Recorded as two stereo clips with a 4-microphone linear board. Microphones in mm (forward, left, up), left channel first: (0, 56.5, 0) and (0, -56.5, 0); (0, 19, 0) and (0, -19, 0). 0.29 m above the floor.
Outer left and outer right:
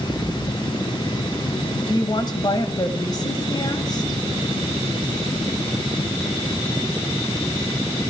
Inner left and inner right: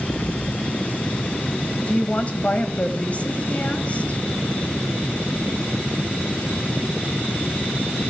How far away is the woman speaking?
About 1.4 m.